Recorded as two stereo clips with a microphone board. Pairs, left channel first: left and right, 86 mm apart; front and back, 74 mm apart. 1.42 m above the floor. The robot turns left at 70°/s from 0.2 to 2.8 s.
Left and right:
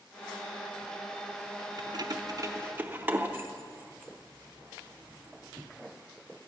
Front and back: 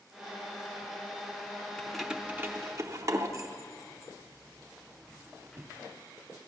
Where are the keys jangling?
80° right, 0.7 m; by 5.7 s 150° right, 0.7 m.